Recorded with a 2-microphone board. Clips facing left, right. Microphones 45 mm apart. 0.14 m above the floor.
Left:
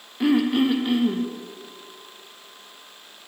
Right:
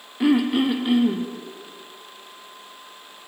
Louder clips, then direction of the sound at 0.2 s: Right 1 dB; 5° right (ahead or behind).